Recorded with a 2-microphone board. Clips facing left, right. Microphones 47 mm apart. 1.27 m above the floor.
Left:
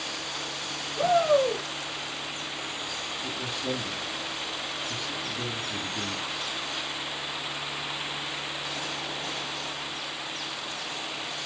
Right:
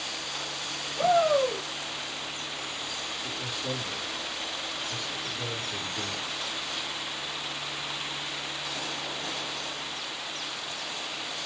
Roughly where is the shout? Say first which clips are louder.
Left 1 dB; centre.